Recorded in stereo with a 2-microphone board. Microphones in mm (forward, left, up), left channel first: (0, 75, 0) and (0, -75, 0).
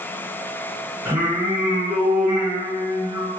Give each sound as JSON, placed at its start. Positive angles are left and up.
{"t": 1.1, "sound": "singing", "side_deg": -10, "distance_m": 1.8}